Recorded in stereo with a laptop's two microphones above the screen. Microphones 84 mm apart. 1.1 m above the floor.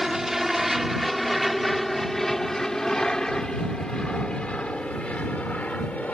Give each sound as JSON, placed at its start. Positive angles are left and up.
{"t": 0.0, "sound": "an aircraft", "side_deg": -5}